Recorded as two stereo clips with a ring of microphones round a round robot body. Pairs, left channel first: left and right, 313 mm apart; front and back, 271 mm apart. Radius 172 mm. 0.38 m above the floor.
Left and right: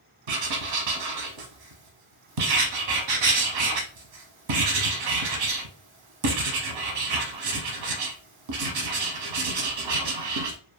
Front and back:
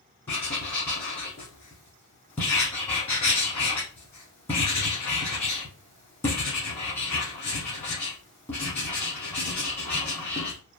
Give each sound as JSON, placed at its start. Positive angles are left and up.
{"t": 0.3, "sound": "writing", "azimuth_deg": -85, "distance_m": 0.8}